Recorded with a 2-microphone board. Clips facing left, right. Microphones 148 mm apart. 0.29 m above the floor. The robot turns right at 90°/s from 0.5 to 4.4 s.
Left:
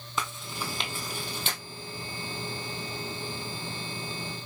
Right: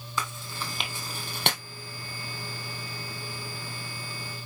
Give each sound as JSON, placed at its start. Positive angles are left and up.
{"t": 0.2, "sound": "chewing", "side_deg": 20, "distance_m": 1.9}